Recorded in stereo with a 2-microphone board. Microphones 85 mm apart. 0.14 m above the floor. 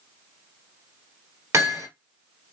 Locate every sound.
1.5 s hammering: 35° right (ahead or behind), 2 m